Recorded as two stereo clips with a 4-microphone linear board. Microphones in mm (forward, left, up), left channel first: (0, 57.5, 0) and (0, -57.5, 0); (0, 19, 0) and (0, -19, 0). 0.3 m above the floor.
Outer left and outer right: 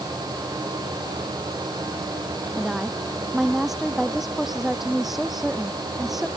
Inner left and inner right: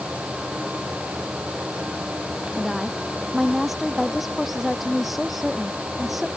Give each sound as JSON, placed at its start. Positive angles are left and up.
{"t": 2.5, "sound": "a woman speaking", "side_deg": -5}